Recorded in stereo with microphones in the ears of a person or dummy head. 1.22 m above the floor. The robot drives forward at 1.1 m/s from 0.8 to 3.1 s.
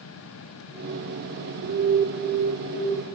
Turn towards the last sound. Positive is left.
turn(degrees=-10)  # may be behind; listen again after turning